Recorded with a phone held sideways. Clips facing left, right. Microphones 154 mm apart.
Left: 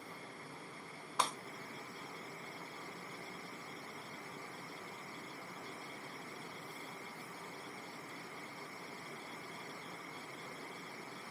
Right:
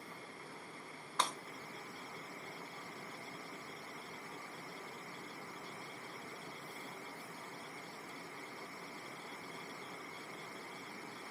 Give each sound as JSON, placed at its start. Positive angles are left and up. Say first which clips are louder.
{"t": 1.2, "sound": "breaking glass", "louder": "left 1 dB", "side_deg": 10, "distance_m": 0.9}